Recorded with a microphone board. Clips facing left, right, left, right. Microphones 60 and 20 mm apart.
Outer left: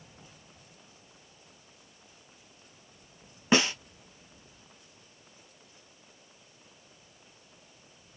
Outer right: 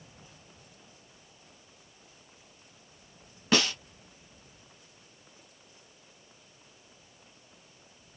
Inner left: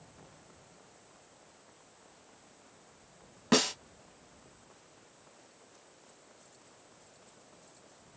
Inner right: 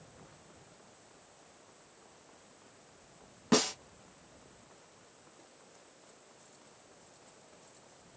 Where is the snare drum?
20° left (ahead or behind), 0.8 m.